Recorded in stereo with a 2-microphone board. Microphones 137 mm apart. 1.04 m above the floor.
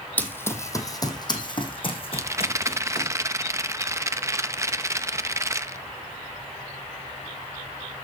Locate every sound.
0.2 s running footsteps: 10° left (ahead or behind), 1.9 m; by 3.1 s 50° left (ahead or behind), 3.5 m
2.1 s a rattle: 20° right (ahead or behind), 0.6 m